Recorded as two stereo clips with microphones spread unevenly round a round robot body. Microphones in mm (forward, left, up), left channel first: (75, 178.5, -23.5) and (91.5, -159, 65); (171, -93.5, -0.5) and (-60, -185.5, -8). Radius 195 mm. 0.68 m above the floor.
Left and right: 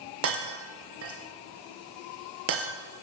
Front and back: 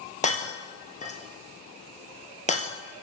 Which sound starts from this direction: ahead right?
Breaking glass, at 0.2 s.